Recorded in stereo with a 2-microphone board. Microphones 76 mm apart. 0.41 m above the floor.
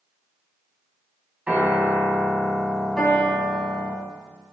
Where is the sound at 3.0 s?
10° left (ahead or behind), 3 m.